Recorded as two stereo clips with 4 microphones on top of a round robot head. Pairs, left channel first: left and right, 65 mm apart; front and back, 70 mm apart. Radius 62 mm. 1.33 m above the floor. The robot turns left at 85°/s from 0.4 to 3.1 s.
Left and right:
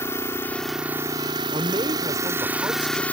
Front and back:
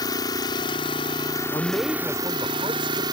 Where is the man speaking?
45° right; by 3.0 s 175° right.